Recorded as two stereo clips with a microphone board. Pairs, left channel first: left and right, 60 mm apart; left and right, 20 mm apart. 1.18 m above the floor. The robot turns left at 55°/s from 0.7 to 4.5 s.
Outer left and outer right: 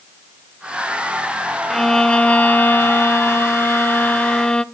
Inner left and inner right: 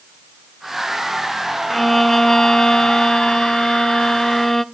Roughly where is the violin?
Behind.